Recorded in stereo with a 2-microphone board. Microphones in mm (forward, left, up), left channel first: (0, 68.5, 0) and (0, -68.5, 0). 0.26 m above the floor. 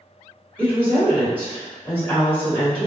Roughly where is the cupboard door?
No cupboard door in this recording.